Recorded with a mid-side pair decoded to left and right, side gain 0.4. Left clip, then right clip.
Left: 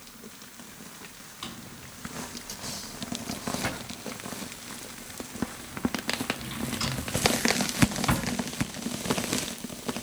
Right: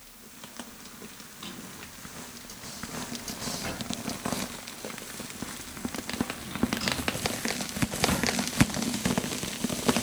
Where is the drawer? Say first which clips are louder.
Left 1 dB; 70° left, 6 m.